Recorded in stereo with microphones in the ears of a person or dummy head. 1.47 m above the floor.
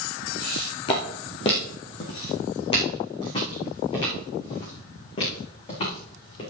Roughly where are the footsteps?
Left.